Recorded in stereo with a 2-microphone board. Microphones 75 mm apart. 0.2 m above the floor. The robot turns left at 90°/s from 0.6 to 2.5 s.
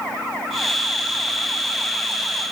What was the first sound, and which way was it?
Only background noise.